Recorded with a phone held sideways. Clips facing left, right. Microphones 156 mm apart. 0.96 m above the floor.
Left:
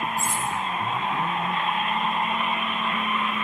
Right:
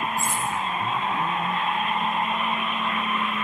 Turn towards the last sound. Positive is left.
turn(degrees=30)  # may be behind; listen again after turning